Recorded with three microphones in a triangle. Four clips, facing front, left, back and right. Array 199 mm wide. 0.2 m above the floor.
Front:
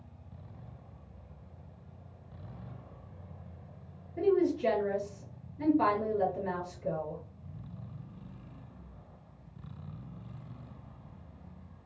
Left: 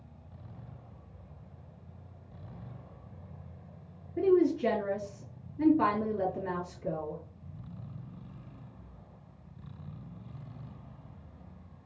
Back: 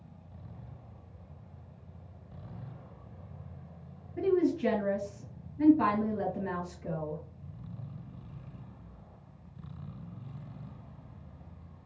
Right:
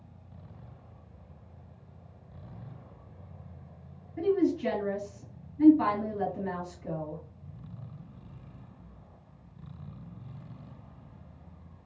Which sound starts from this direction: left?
A woman speaking, at 4.2 s.